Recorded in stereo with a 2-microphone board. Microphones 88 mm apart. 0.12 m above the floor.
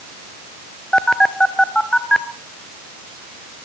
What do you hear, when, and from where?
0.9 s a phone buzzing: 10° left (ahead or behind), 0.7 m